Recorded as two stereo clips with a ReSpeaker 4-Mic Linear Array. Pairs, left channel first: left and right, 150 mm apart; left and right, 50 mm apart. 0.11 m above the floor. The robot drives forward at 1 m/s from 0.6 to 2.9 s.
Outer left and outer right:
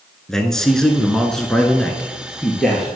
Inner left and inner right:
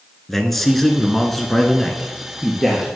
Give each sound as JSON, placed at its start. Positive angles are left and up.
{"t": 0.3, "sound": "a man speaking", "side_deg": 5, "distance_m": 1.3}